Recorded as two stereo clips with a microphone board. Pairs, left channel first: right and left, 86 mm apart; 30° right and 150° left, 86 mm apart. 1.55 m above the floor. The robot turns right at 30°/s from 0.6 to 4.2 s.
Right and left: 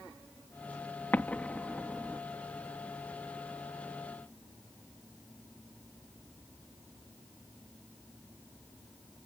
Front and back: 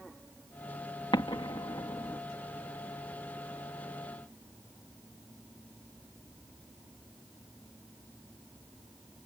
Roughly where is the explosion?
Ahead.